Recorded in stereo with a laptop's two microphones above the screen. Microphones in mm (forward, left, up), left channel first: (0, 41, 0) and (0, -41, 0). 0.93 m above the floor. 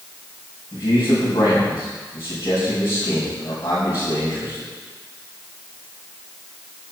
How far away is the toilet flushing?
No toilet flushing in this recording.